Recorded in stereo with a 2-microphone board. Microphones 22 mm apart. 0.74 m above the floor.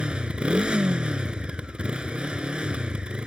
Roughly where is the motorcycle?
Right.